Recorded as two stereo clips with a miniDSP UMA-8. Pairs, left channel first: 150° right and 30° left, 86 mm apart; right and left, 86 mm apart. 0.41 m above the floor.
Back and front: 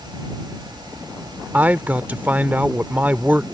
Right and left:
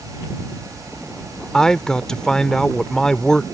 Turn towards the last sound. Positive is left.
turn(degrees=-15)